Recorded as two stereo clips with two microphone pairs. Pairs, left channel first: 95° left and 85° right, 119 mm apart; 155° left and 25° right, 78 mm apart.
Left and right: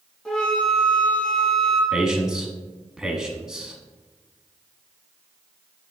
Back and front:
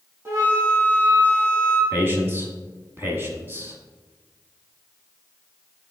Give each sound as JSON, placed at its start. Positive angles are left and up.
{"t": 0.2, "sound": "a flute", "azimuth_deg": 15, "distance_m": 2.0}
{"t": 1.9, "sound": "a man speaking", "azimuth_deg": -5, "distance_m": 1.4}